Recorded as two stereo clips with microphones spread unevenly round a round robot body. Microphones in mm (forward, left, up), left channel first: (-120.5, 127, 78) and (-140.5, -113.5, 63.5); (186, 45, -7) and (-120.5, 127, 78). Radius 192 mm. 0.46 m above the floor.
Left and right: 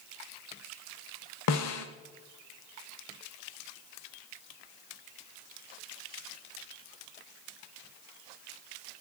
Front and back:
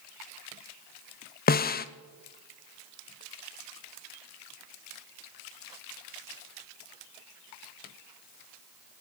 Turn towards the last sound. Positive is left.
turn(degrees=50)